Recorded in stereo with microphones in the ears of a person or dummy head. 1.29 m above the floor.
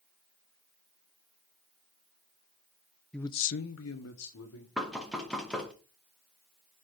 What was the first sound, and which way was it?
A man speaking, 5° left (ahead or behind).